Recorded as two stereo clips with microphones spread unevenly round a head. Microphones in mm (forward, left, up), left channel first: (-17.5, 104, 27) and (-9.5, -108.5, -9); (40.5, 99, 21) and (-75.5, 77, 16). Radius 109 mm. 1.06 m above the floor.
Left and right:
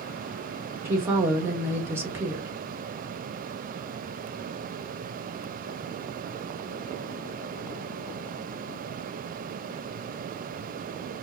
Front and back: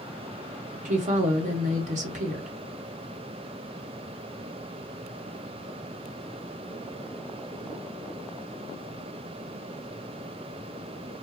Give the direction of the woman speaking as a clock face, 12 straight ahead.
6 o'clock.